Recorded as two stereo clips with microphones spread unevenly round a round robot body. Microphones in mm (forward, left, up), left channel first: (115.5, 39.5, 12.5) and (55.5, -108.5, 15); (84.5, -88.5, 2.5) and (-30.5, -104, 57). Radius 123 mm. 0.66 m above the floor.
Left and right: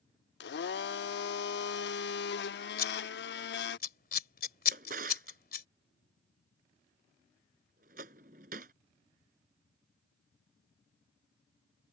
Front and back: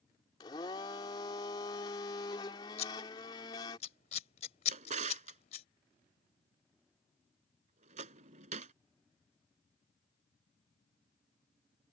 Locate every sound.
0.4 s a blender: 70° left
2.8 s scissors: 45° left
4.7 s a drawer: 170° right